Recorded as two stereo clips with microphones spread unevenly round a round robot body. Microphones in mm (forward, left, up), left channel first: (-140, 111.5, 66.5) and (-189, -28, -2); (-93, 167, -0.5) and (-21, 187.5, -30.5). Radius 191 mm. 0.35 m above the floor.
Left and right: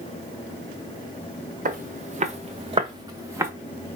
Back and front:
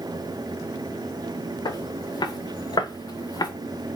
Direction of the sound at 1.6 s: 150° right.